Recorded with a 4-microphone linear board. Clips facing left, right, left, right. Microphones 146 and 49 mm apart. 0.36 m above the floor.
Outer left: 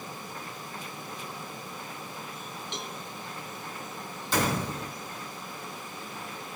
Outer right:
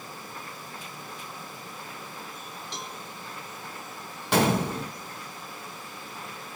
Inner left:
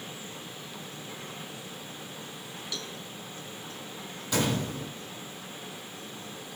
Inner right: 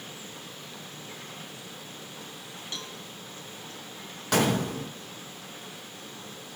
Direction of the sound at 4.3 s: 70° right (ahead or behind).